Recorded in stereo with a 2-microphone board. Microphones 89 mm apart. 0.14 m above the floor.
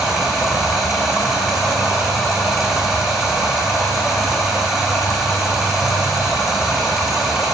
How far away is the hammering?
I don't hear hammering.